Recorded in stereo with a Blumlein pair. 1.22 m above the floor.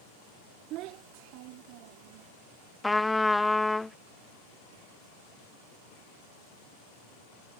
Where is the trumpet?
5° left.